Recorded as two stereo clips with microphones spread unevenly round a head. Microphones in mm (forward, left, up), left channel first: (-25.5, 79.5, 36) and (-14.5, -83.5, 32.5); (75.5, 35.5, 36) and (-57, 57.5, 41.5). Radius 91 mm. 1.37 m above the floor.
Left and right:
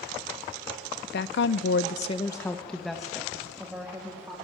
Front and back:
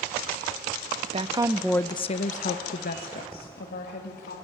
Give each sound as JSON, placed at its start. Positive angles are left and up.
{"t": 1.1, "sound": "a woman speaking", "azimuth_deg": 125, "distance_m": 0.7}